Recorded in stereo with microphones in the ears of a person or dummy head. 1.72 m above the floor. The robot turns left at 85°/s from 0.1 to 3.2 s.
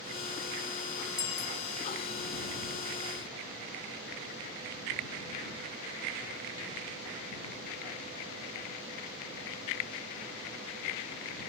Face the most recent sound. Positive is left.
turn(degrees=-10)